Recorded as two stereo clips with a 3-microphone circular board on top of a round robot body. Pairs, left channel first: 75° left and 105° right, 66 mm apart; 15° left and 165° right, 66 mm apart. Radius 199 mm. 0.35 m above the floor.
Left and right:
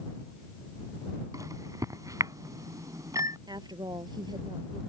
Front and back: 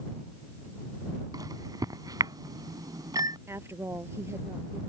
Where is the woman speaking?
115° right.